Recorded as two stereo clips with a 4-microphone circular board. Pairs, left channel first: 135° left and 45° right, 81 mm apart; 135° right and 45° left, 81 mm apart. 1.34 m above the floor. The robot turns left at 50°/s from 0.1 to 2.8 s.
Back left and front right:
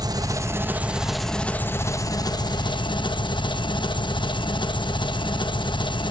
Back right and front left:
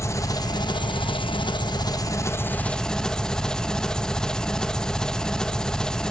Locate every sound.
0.0 s an engine running: 80° right, 1.2 m; by 6.1 s 145° left, 1.2 m